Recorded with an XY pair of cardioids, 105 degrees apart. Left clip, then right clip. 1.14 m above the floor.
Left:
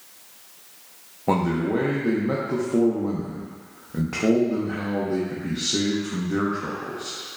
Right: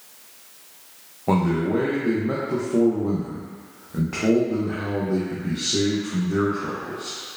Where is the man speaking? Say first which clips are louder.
Right 1 dB; 10° left, 0.7 m.